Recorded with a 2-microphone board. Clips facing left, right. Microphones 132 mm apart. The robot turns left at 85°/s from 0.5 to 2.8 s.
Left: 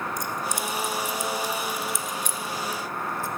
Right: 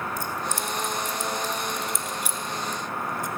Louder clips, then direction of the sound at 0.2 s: Even; 15° left (ahead or behind).